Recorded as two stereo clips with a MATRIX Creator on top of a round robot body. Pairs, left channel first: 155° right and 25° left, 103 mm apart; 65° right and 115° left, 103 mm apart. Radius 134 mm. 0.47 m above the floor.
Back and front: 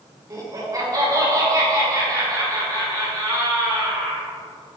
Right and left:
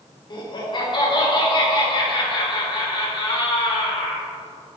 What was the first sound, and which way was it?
Laughter, 30° right.